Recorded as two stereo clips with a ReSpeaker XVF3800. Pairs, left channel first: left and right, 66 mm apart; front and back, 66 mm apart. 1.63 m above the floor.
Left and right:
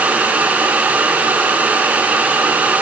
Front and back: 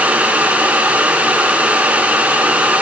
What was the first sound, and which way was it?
Only background noise.